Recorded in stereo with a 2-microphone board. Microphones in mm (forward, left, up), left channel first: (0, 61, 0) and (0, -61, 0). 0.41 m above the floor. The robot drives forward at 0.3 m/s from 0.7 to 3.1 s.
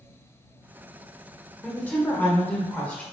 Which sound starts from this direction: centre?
A woman speaking, at 1.6 s.